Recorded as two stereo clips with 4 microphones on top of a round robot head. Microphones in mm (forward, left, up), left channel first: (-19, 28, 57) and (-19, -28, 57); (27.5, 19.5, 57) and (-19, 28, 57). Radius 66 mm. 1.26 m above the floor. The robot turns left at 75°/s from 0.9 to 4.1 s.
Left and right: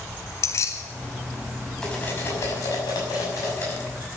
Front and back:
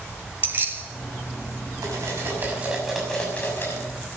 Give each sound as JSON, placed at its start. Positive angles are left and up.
{"t": 0.4, "sound": "keys jangling", "azimuth_deg": 125, "distance_m": 2.0}
{"t": 1.8, "sound": "cutlery clinking", "azimuth_deg": 170, "distance_m": 6.0}